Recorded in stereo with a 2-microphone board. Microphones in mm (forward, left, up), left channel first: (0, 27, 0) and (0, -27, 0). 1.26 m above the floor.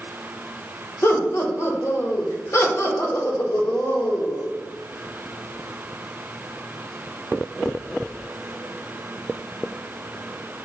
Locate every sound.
1.0 s laughter: 50° left (ahead or behind), 1.0 m